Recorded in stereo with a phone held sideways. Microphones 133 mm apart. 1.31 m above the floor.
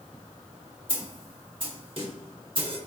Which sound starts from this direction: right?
A snare drum, at 0.9 s.